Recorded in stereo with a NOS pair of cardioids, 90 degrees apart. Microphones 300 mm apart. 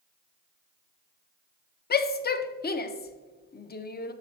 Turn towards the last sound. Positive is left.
turn(degrees=35)